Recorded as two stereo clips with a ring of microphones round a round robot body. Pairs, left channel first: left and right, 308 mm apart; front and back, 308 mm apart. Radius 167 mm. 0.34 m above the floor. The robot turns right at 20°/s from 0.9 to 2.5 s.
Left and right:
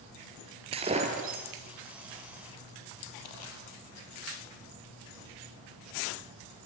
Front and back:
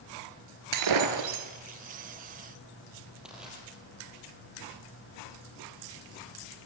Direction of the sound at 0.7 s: 165° right.